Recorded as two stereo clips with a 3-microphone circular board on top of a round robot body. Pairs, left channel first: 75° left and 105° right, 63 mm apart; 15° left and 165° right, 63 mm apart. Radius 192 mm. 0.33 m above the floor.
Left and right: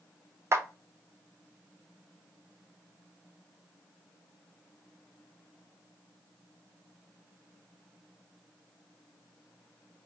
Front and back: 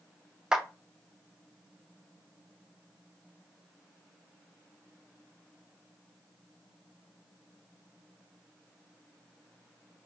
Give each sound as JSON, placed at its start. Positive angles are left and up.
{"t": 0.5, "sound": "a clap", "azimuth_deg": -95, "distance_m": 0.7}